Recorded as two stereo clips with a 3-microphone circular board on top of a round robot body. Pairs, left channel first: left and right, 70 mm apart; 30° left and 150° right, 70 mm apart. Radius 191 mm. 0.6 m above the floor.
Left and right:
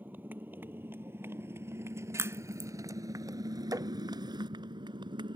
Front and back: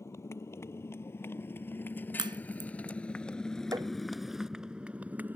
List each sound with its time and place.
0.0 s a motorcycle: 20° right; by 5.4 s 85° right
2.2 s a crack: 145° right
3.7 s tapping: 120° right